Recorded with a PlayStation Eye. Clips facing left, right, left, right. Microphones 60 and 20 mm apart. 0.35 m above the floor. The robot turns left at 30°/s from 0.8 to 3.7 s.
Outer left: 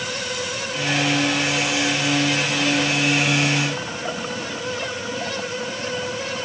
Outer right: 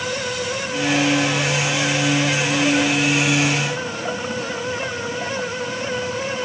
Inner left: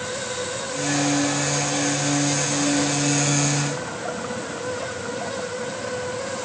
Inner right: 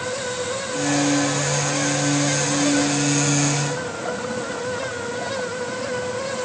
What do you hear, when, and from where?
Only background noise.